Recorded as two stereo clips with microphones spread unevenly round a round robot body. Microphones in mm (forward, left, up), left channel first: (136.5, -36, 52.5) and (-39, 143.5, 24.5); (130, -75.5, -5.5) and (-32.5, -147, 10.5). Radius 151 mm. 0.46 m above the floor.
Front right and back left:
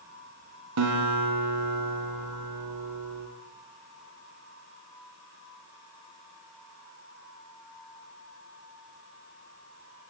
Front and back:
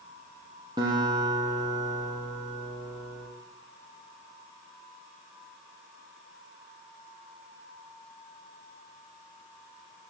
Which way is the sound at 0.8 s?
125° left.